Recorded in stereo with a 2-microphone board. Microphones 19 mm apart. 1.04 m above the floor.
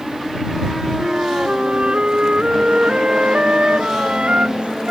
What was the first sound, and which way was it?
A flute, 65° right (ahead or behind).